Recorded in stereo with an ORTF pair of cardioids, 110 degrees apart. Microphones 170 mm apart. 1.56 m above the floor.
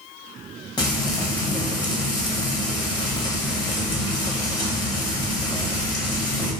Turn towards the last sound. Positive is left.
turn(degrees=25)